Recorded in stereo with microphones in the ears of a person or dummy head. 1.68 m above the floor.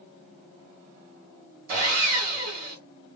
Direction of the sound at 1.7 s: 45° right (ahead or behind).